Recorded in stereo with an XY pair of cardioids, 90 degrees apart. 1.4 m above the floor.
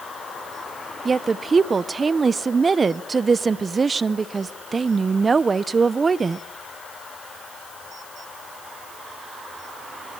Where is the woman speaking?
35° right, 0.8 m.